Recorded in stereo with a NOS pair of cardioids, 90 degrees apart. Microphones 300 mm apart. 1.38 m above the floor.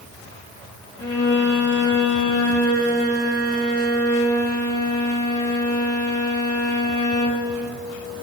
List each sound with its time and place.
1.0 s a violin: 50° left, 2 m